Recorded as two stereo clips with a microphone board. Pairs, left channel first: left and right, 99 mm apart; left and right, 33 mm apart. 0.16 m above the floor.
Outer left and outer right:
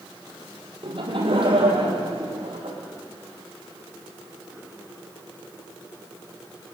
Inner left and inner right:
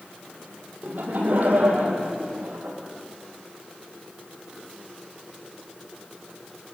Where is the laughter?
60° right (ahead or behind), 5 m.